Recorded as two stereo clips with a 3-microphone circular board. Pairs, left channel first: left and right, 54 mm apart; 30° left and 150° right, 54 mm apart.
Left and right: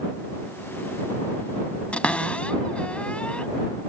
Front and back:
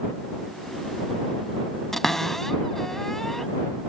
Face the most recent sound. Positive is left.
turn(degrees=105)